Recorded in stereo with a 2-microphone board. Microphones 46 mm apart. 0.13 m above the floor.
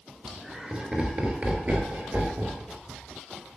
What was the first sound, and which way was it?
Laughter, 5° right (ahead or behind).